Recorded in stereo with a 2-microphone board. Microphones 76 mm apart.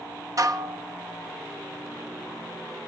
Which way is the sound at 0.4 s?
45° right (ahead or behind).